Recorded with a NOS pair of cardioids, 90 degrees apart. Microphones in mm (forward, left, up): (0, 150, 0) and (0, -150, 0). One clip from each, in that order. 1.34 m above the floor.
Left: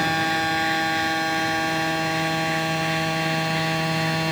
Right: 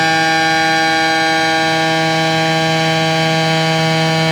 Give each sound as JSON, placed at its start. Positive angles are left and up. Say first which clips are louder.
{"t": 0.0, "sound": "a machine running", "louder": "right 9 dB", "azimuth_deg": -70}